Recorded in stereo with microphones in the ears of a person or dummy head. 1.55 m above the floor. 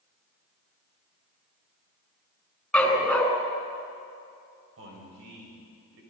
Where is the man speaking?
85° right, 6.5 m.